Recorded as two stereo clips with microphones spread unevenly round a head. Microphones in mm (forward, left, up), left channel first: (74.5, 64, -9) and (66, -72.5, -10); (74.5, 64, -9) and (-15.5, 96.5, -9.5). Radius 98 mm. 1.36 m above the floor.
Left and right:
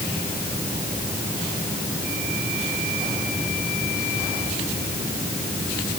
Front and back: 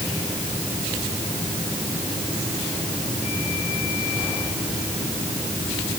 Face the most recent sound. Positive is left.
No sound to turn to.